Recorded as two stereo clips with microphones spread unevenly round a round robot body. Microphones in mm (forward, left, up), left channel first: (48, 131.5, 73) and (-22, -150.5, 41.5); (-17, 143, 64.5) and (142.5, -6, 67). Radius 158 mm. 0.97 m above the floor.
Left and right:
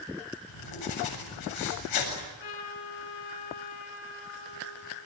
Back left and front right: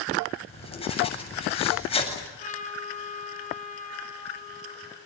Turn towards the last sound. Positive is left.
turn(degrees=80)